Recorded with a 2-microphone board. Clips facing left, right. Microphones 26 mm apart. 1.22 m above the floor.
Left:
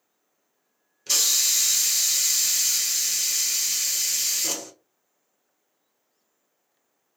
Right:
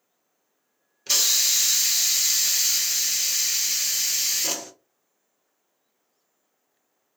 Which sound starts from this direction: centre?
A hiss, at 1.1 s.